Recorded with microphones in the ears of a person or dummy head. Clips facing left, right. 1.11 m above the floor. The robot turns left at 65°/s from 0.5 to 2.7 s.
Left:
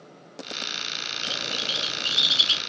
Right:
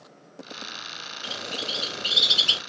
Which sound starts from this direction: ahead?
A bird, at 1.2 s.